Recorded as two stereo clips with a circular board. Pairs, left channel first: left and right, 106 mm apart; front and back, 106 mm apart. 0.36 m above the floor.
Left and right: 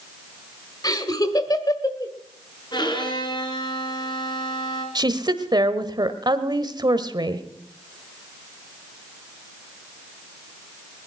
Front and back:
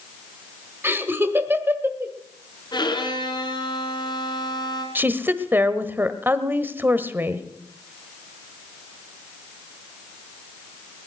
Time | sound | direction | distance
0.8 | laughter | 120° left | 1.8 m
2.7 | a violin | 45° left | 3 m
5.0 | a woman speaking | 115° right | 1.2 m